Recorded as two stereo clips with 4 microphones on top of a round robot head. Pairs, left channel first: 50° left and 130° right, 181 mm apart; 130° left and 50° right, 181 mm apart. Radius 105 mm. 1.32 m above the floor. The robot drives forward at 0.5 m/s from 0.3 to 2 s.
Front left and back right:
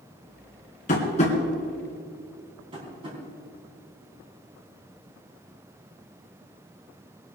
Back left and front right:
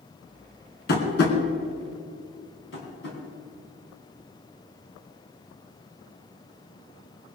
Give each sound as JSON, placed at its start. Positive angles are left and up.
{"t": 0.9, "sound": "tapping", "azimuth_deg": 100, "distance_m": 2.5}
{"t": 2.7, "sound": "tapping", "azimuth_deg": 165, "distance_m": 4.0}